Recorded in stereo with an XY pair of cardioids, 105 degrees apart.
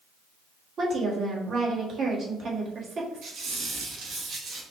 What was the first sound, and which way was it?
A woman speaking, 50° right.